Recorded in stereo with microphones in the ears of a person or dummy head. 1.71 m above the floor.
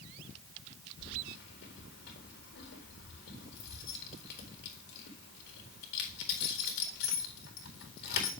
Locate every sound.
1.0 s keys jangling: 60° left (ahead or behind), 4 m